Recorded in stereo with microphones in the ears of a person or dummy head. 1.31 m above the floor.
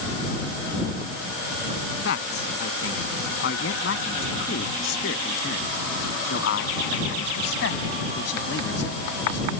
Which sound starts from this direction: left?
A man speaking, at 2.0 s.